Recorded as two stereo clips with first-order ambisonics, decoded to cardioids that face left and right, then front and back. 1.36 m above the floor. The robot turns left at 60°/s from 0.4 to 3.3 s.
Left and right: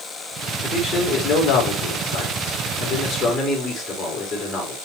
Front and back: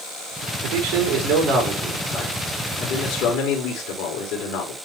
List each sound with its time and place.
0.6 s a man speaking: 170° left, 3 m; by 4.8 s 10° left, 3 m